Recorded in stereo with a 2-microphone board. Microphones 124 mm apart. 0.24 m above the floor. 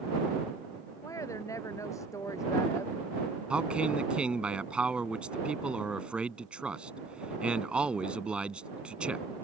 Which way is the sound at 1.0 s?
25° left (ahead or behind).